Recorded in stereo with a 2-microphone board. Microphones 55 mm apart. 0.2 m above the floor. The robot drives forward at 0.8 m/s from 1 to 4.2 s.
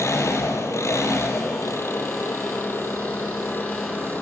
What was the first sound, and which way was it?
An engine running, 60° left (ahead or behind).